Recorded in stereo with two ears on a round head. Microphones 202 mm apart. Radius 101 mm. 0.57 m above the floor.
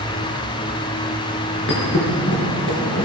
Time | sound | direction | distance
1.7 | a thud | 60° left (ahead or behind) | 4.5 m